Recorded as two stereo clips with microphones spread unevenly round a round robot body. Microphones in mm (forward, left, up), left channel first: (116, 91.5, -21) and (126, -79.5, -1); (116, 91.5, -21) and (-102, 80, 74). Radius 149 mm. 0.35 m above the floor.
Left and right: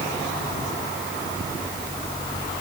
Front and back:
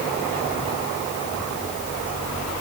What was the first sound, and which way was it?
Only background noise.